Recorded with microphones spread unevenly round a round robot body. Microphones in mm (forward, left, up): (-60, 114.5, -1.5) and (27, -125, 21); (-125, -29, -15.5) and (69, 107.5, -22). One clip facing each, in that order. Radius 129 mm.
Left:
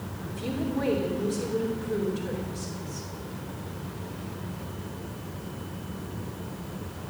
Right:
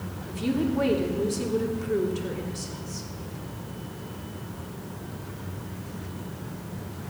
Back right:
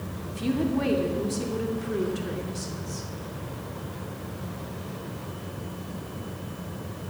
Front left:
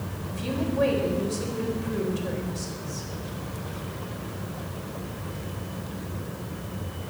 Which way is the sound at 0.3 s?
115° right.